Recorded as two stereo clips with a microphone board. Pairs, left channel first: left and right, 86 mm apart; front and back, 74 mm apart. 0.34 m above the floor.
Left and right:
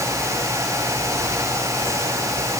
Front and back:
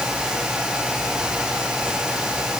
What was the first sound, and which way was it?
Only background noise.